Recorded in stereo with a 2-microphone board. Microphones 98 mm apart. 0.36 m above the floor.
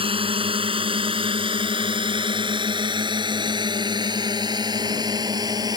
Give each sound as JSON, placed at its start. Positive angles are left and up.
{"t": 0.0, "sound": "a drone", "side_deg": -75}